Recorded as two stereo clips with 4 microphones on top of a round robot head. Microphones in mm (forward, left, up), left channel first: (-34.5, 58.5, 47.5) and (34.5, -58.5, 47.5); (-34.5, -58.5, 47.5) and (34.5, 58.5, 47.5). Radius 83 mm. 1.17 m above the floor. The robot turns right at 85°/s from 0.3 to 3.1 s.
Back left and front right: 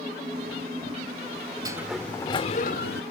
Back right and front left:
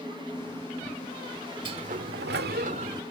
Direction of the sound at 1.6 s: 5° left.